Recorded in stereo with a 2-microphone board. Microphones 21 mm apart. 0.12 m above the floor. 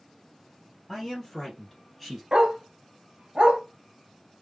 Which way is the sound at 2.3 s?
60° right (ahead or behind).